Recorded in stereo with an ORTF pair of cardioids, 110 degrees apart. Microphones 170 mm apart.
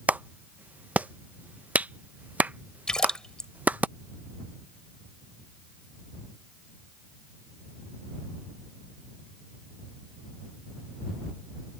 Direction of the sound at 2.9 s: 5° left.